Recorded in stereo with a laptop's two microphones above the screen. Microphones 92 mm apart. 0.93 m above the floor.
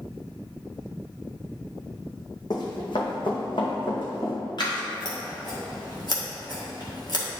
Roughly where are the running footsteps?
Left.